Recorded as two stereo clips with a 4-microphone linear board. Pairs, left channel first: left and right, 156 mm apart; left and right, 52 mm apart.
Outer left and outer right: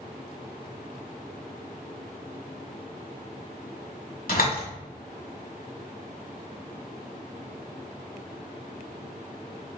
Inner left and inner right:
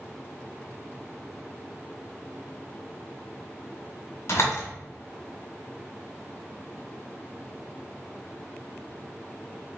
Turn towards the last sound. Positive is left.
turn(degrees=65)  # may be behind; listen again after turning